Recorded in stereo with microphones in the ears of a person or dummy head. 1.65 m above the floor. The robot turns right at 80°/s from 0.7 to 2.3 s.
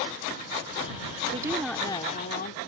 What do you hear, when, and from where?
1.3 s a woman speaking: 30° right; by 2.6 s 50° left